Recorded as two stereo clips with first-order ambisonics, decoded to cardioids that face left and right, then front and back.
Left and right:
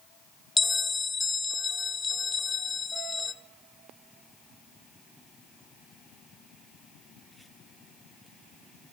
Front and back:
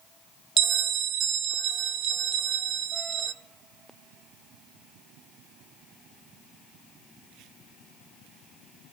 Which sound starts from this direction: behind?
A bell, at 0.6 s.